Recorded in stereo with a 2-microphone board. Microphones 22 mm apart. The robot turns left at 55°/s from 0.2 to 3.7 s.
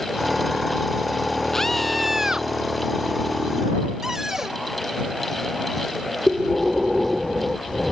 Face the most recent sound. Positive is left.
turn(degrees=-15)  # may be behind; listen again after turning